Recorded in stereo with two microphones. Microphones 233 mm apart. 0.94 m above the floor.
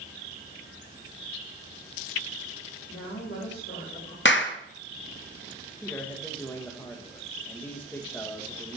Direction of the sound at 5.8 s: 10° left (ahead or behind).